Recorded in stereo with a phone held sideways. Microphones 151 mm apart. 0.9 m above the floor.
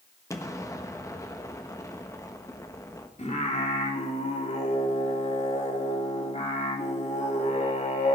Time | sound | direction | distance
0.3 | an explosion | 20° left (ahead or behind) | 1.2 m
3.2 | singing | 45° left (ahead or behind) | 1.9 m